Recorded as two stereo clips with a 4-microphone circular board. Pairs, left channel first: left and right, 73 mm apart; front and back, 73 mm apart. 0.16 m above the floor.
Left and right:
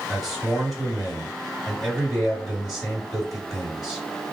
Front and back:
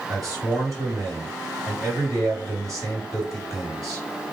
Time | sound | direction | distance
0.1 | a man speaking | straight behind | 2 m